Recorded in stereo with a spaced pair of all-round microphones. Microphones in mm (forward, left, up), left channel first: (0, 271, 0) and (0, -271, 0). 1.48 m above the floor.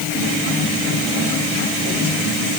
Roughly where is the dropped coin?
I don't hear a dropped coin.